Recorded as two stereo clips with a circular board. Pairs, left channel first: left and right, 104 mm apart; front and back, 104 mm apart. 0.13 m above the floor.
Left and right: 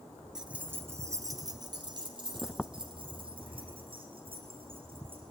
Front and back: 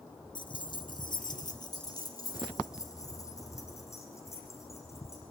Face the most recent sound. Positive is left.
turn(degrees=-60)